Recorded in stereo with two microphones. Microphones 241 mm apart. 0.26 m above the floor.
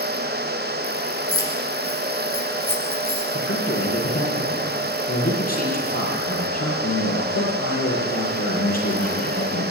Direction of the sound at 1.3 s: 70° right (ahead or behind).